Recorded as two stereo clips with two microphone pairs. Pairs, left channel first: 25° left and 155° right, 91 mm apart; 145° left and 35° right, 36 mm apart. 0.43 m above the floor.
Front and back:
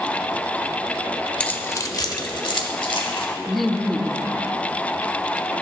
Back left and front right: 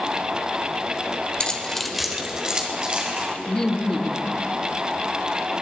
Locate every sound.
1.4 s keys jangling: 100° left, 1.0 m; by 3.3 s 25° left, 2.5 m
3.5 s laughter: 105° left, 0.7 m